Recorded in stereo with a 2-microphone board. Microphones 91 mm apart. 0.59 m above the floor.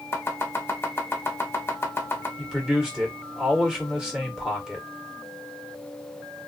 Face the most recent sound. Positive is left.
turn(degrees=-5)  # may be behind; listen again after turning